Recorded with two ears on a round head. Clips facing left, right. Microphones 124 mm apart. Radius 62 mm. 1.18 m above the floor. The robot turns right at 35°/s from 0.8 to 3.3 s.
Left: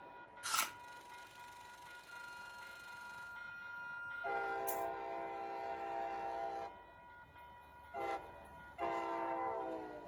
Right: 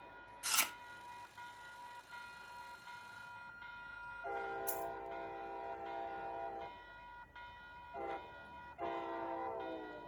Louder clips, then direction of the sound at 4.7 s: Left 2 dB; 10° right (ahead or behind).